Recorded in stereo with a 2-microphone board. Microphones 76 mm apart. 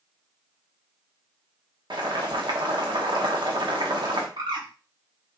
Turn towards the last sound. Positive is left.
turn(degrees=-80)